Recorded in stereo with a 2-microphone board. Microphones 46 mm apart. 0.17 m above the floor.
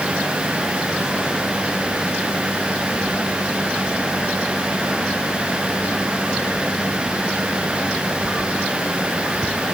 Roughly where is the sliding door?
I don't hear a sliding door.